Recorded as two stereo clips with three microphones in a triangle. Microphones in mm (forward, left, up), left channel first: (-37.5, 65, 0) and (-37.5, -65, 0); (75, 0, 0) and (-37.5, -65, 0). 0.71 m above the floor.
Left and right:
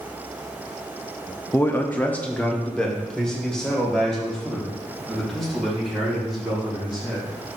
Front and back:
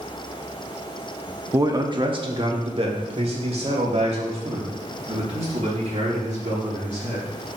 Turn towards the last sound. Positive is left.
turn(degrees=180)